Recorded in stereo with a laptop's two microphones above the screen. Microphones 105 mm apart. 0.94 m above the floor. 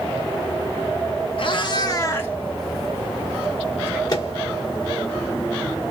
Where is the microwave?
40° left (ahead or behind), 1.6 m.